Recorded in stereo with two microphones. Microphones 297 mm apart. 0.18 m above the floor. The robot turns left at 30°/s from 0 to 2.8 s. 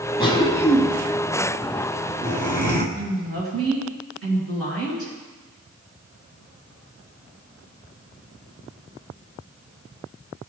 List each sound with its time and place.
0.2 s a cough: 15° left (ahead or behind), 1.5 m; by 2.9 s 30° right (ahead or behind), 1.5 m
3.0 s a woman speaking: 50° right (ahead or behind), 2.5 m